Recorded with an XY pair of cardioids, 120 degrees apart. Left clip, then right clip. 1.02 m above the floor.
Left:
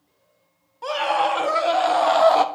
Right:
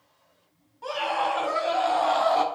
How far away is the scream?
About 1.7 m.